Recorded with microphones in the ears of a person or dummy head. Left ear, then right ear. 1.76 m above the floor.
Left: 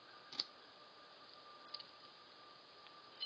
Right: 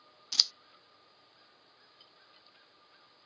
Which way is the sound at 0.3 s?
55° right (ahead or behind).